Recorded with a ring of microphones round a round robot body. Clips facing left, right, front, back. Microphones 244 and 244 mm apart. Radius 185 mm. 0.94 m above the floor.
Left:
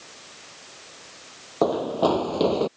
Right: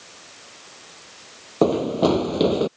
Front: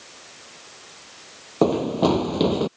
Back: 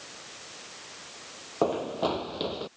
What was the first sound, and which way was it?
Running footsteps, 35° right.